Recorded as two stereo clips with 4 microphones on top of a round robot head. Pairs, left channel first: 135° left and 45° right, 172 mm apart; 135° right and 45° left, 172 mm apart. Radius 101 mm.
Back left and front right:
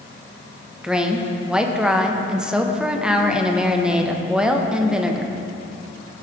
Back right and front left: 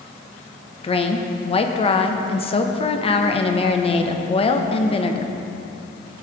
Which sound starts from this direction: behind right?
A woman speaking, at 0.8 s.